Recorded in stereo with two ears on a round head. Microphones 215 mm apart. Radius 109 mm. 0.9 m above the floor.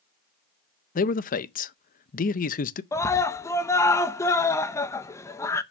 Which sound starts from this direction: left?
A man speaking, at 0.9 s.